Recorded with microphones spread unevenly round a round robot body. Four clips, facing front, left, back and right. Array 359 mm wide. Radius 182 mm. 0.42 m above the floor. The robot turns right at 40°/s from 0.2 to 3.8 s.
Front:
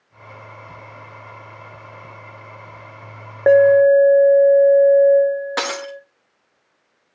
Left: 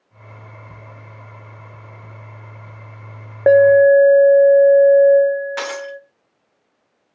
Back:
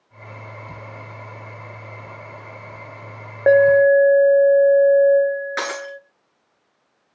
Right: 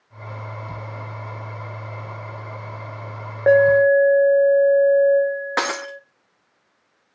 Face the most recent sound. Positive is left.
turn(degrees=-70)